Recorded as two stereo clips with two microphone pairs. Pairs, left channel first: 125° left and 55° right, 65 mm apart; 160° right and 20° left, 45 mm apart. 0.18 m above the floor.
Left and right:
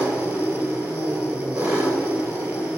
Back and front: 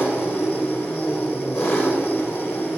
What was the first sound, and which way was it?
An engine running, 130° right.